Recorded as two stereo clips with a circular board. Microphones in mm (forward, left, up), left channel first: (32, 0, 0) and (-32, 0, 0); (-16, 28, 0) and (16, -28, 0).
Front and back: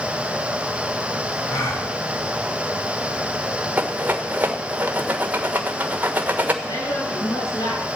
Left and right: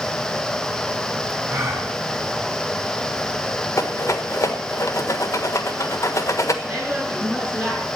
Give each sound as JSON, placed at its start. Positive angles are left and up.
{"t": 1.5, "sound": "a gasp", "azimuth_deg": -15, "distance_m": 6.5}
{"t": 3.8, "sound": "a rattle", "azimuth_deg": 120, "distance_m": 1.5}
{"t": 6.6, "sound": "a woman speaking", "azimuth_deg": 15, "distance_m": 8.5}